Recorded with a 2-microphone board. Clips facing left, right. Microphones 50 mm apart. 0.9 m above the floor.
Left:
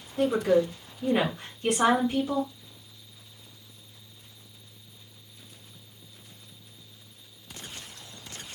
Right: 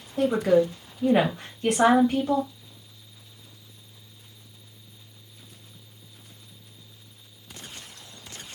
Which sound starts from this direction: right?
A woman speaking, at 0.2 s.